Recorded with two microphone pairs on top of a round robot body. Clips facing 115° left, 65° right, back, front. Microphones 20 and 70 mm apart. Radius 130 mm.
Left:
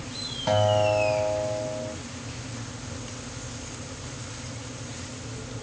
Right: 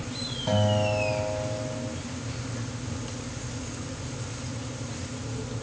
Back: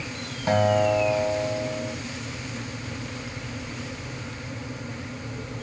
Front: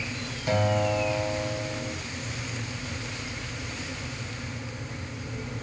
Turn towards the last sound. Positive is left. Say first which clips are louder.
# left 4 dB, back 5 dB
turn(degrees=150)